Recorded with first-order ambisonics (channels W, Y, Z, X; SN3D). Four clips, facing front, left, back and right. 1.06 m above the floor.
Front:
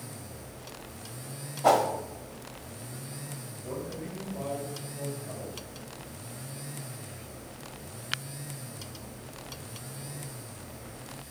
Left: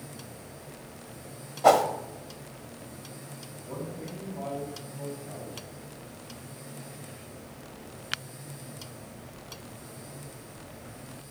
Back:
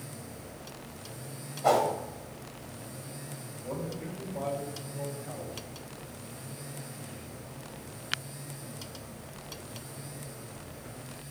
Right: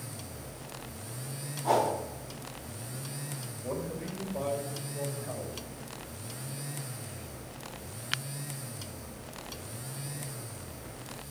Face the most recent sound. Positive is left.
turn(degrees=-95)